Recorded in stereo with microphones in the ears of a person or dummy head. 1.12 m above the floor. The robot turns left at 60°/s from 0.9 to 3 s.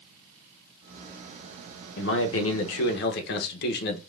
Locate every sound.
2.0 s a man speaking: 130° left, 0.9 m; by 4.0 s 65° left, 0.9 m